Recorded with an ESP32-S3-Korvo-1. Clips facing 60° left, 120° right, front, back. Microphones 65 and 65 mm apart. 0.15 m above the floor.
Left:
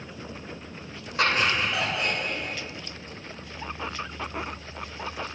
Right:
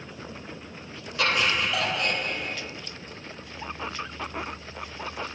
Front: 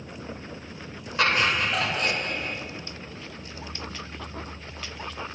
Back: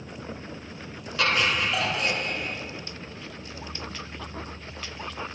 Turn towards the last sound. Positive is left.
turn(degrees=-25)